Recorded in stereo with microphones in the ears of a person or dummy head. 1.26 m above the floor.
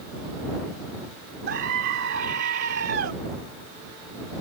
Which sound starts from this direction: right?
A scream, at 1.5 s.